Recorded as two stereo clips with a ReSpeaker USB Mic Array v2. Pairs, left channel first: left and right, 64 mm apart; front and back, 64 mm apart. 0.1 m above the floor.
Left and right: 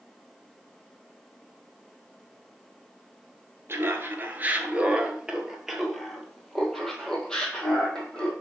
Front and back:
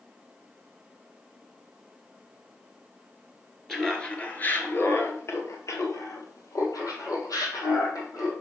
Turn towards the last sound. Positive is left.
turn(degrees=15)